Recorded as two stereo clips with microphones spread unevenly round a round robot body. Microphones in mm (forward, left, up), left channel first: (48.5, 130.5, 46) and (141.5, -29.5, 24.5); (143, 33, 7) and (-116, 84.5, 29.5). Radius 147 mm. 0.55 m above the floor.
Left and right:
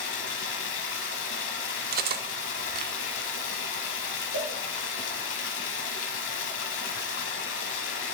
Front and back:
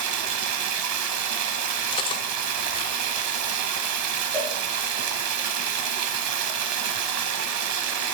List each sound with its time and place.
0.0 s running water: 150° left, 1.0 m
1.9 s cutlery clinking: 80° right, 0.6 m
4.3 s a cowbell: 95° right, 3.5 m